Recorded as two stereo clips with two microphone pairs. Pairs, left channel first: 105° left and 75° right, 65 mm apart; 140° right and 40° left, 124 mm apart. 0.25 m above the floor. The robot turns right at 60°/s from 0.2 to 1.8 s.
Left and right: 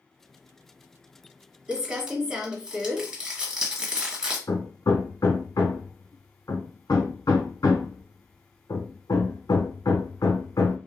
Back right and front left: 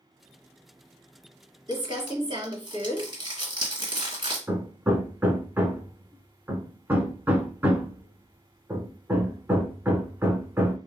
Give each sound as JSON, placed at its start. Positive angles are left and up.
{"t": 1.7, "sound": "crumpling", "azimuth_deg": -5, "distance_m": 1.1}
{"t": 4.5, "sound": "hammering", "azimuth_deg": 115, "distance_m": 0.6}